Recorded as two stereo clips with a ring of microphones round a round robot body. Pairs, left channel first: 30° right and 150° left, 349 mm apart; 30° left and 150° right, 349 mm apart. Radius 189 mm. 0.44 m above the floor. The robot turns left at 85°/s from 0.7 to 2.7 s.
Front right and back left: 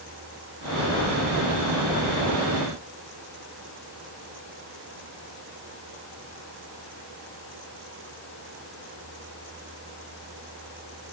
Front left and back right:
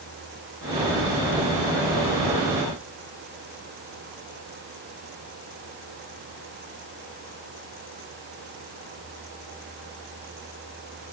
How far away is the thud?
I don't hear a thud.